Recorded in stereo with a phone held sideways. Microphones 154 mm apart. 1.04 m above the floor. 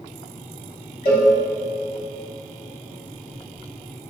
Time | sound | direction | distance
1.1 | a cowbell | 75° left (ahead or behind) | 2.5 m